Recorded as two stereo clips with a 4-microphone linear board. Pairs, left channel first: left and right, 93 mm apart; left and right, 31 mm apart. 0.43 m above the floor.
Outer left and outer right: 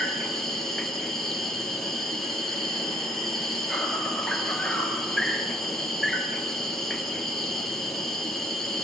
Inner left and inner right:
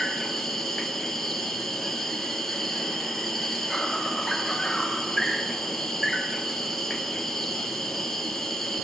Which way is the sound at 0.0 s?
5° left (ahead or behind).